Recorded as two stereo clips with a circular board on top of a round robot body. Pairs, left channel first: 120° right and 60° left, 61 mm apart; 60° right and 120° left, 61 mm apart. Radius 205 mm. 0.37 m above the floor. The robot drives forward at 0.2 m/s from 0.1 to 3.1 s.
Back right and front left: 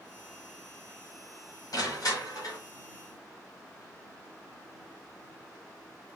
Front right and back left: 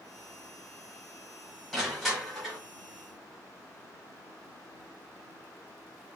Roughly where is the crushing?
Behind right.